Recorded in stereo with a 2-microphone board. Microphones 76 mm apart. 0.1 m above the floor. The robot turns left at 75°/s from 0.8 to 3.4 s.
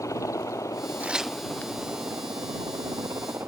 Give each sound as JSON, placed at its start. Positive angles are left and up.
{"t": 0.0, "sound": "a helicopter", "azimuth_deg": 55}
{"t": 1.0, "sound": "tearing paper", "side_deg": -25}